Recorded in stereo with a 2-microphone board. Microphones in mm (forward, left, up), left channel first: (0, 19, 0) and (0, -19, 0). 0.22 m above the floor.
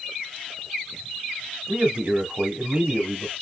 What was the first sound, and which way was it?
A man speaking, 30° right (ahead or behind).